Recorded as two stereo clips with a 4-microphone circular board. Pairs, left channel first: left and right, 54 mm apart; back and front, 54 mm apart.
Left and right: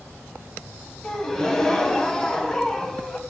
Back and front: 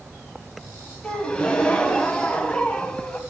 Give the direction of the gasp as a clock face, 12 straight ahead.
7 o'clock.